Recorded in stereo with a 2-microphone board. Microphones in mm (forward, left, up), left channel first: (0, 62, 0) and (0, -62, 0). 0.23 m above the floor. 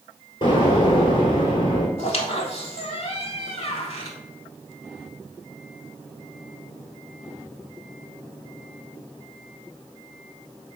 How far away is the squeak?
About 0.6 m.